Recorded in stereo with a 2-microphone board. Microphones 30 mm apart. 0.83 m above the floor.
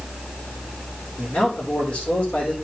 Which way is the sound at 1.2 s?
45° left (ahead or behind).